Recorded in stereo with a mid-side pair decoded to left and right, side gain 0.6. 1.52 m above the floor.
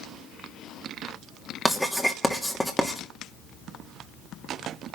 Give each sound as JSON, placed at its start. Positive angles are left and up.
{"t": 1.6, "sound": "writing", "azimuth_deg": 0, "distance_m": 3.0}